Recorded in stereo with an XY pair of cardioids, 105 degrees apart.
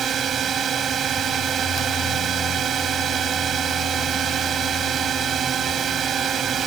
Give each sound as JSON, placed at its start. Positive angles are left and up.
{"t": 0.0, "sound": "a drone", "azimuth_deg": -50}